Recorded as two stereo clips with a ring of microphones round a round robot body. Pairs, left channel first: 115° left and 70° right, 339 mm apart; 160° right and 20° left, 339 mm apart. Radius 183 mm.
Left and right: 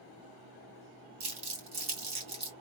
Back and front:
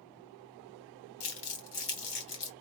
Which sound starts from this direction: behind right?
Crumpling, at 1.2 s.